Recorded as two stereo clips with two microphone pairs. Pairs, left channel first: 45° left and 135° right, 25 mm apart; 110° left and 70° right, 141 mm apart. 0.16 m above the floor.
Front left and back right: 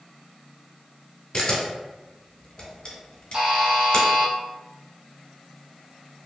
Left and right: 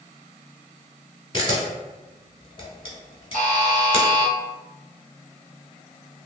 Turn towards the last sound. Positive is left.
turn(degrees=-80)